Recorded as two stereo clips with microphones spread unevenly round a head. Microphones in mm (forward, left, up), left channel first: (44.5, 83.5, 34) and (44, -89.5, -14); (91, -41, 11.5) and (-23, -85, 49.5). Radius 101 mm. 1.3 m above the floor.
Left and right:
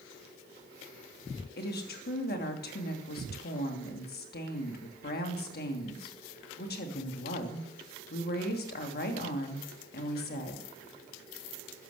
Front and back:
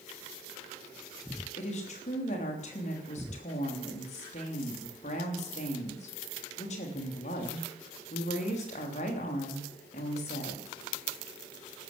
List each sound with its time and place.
1.6 s a woman speaking: 55° left, 3 m